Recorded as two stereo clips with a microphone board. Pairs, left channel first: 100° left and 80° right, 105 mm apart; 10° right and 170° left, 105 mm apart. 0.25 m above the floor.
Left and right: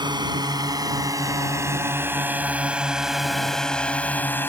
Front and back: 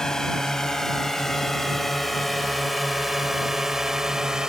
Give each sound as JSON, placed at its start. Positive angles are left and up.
{"t": 0.0, "sound": "a drone", "azimuth_deg": -95}